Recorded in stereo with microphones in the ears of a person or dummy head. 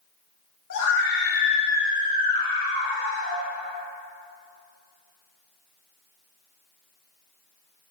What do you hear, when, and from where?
0.7 s a scream: 65° left (ahead or behind), 1.8 m; by 3.4 s 75° right (ahead or behind), 2 m